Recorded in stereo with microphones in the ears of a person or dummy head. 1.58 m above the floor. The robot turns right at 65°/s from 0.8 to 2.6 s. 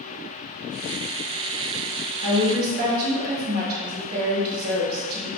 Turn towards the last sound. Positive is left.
turn(degrees=-55)  # may be behind; listen again after turning